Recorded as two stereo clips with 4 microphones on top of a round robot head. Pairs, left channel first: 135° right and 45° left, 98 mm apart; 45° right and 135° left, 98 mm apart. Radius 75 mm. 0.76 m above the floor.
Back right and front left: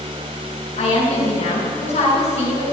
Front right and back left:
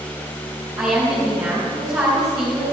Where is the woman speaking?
160° right, 6.5 m.